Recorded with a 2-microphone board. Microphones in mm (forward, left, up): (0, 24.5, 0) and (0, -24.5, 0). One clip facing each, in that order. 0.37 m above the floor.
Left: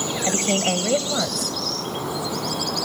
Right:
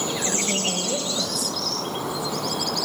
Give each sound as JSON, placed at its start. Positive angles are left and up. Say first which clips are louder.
{"t": 0.2, "sound": "a woman speaking", "louder": "left 4 dB", "side_deg": 55, "distance_m": 2.0}